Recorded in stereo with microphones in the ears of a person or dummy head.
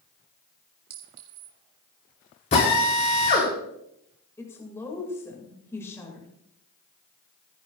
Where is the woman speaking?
10° left (ahead or behind), 2 m.